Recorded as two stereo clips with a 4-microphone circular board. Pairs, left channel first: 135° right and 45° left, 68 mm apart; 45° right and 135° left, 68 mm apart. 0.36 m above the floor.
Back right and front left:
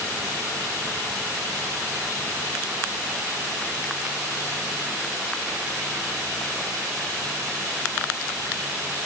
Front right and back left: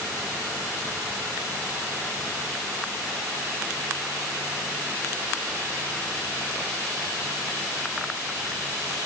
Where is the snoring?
No snoring in this recording.